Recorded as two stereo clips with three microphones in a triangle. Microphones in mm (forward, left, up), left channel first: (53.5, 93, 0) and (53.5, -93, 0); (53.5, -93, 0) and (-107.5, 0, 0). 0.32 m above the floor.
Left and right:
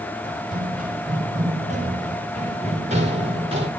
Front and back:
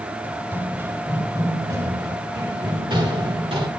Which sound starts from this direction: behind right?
Running footsteps, at 0.2 s.